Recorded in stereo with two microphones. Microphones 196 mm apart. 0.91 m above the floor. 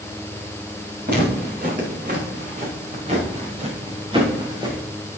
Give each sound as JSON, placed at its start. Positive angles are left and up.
{"t": 1.1, "sound": "footsteps", "side_deg": -50, "distance_m": 6.0}